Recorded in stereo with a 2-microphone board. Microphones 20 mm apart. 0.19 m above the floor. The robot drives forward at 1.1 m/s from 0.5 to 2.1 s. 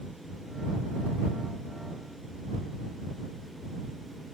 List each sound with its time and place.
Only background noise.